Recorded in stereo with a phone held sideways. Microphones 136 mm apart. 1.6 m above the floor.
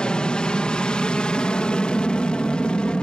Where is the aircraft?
5° left (ahead or behind).